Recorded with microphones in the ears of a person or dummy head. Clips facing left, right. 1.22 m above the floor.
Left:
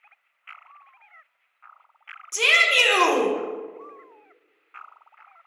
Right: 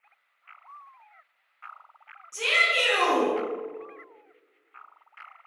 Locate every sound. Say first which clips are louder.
2.3 s a shout: left 4 dB; 80° left, 0.7 m